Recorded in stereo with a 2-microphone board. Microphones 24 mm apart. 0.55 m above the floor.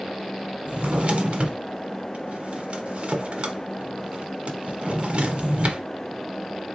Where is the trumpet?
I don't hear a trumpet.